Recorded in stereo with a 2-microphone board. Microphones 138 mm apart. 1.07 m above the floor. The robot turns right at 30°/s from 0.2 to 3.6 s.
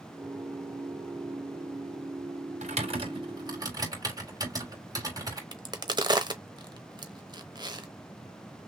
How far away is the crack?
About 0.9 m.